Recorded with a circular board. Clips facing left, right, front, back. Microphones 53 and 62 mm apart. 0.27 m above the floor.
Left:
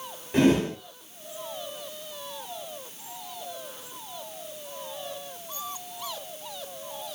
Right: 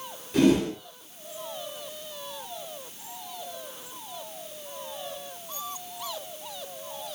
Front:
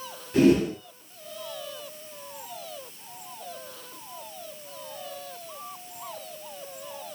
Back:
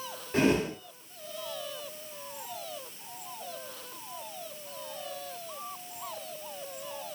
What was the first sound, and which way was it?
A whoosh, 130° left.